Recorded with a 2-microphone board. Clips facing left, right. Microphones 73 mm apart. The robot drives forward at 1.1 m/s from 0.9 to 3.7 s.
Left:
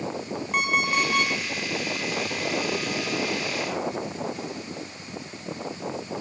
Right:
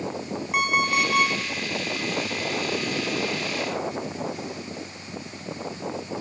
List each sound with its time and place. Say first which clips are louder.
0.5 s an alarm clock: right 1 dB; 5° right (ahead or behind), 2.5 m